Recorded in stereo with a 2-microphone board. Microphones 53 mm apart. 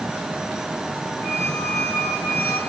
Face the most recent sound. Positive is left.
turn(degrees=70)  # may be behind; listen again after turning